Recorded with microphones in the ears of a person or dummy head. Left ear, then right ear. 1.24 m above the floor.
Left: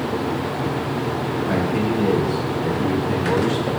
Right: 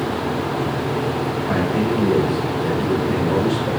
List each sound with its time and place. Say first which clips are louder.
1.4 s a man speaking: right 2 dB; 90° left, 1.9 m; by 3.7 s 70° left (ahead or behind), 4.5 m